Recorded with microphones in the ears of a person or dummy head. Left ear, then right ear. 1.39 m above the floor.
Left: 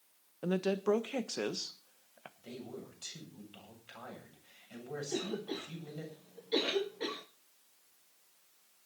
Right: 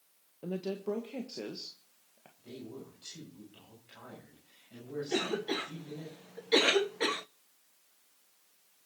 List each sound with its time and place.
0.4 s a woman speaking: 55° left (ahead or behind), 1.3 m
2.4 s a man speaking: 45° left (ahead or behind), 8 m
5.1 s a cough: 50° right (ahead or behind), 0.6 m